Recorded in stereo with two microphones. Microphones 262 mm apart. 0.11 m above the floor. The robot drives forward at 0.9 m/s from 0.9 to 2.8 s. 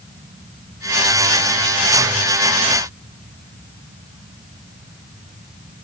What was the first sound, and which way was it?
Only background noise.